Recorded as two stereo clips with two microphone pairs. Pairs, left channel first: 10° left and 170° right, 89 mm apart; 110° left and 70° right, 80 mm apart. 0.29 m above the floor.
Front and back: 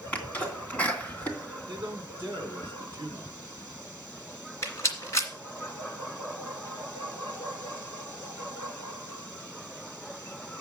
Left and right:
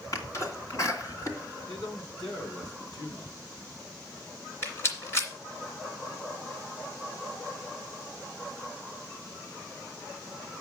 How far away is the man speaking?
About 2.5 m.